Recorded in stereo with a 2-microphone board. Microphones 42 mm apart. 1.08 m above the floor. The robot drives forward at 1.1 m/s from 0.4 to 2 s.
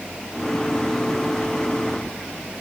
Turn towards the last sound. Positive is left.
No sound to turn to.